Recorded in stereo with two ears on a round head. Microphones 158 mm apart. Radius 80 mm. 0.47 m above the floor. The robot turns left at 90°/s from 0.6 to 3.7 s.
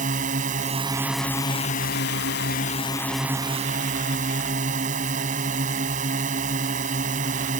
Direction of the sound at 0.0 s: 130° right.